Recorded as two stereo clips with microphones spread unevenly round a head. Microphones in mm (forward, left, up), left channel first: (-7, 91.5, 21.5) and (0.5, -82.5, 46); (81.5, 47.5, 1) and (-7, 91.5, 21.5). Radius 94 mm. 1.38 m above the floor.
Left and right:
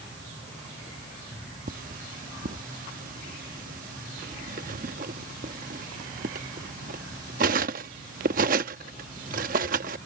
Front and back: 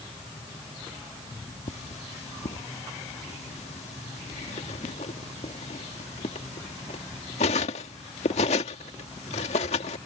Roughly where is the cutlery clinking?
Ahead right.